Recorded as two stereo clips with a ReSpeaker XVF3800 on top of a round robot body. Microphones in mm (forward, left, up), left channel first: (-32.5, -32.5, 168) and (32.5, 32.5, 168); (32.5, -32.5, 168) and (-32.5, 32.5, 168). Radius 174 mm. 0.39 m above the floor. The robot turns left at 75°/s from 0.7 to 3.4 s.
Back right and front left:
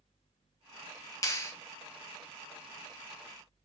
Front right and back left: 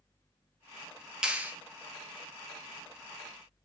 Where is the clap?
150° right, 0.8 m; by 1.5 s 170° right, 0.8 m.